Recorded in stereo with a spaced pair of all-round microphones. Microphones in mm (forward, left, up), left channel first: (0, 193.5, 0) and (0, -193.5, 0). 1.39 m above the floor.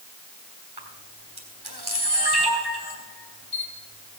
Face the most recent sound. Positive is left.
turn(degrees=-70)  # may be behind; listen again after turning